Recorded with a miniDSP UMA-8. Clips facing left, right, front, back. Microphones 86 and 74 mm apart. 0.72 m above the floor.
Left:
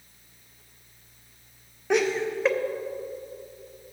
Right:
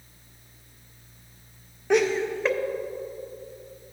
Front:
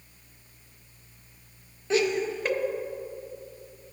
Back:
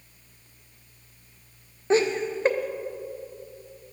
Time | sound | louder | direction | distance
1.9 | laughter | right 2 dB, back 3 dB | straight behind | 0.5 m